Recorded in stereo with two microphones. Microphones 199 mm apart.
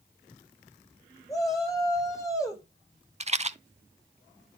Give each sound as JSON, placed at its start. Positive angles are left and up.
{"t": 1.3, "sound": "a shout", "side_deg": 15, "distance_m": 8.5}
{"t": 3.2, "sound": "a rattle", "side_deg": -35, "distance_m": 0.5}